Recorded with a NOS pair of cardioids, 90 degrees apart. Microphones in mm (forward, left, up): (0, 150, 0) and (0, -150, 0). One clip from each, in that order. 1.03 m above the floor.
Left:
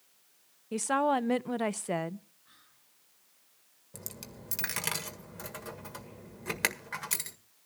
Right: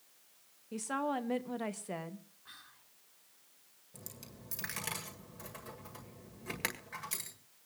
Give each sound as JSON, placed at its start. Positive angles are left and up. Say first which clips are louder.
{"t": 0.7, "sound": "a woman speaking", "louder": "left 8 dB", "azimuth_deg": 40, "distance_m": 0.7}
{"t": 2.5, "sound": "whispering", "louder": "right 7 dB", "azimuth_deg": -65, "distance_m": 4.0}
{"t": 3.9, "sound": "a dropped coin", "louder": "left 6 dB", "azimuth_deg": 50, "distance_m": 1.7}